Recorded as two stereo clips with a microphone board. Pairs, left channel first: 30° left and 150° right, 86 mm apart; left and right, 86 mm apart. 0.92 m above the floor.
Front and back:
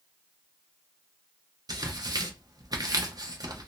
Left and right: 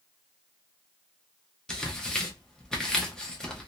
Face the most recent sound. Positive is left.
turn(degrees=170)